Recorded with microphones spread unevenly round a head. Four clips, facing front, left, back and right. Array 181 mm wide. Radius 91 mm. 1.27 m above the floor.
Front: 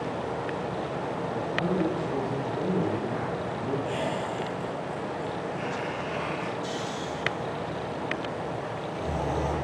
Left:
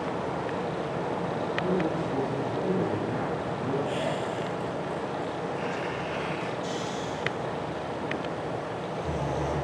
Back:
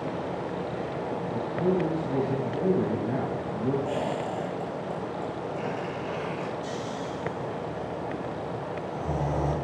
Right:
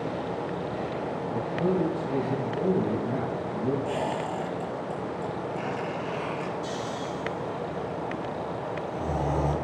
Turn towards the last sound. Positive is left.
turn(degrees=-90)